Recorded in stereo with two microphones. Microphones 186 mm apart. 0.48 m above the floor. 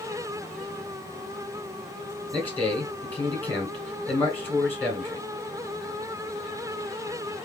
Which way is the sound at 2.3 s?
10° left (ahead or behind).